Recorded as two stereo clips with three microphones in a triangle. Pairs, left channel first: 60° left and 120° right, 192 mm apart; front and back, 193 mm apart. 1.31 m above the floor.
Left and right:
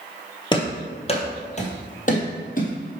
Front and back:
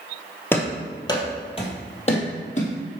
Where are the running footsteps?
60° left, 1.4 m; by 2.7 s 35° left, 2 m.